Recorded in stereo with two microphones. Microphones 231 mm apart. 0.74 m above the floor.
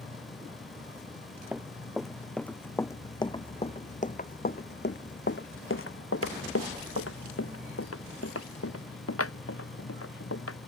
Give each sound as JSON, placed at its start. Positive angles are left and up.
{"t": 0.0, "sound": "an insect", "side_deg": 70}
{"t": 1.5, "sound": "running footsteps", "side_deg": -5}